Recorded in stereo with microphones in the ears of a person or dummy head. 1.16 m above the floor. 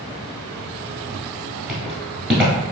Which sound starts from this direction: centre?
Footsteps, at 1.7 s.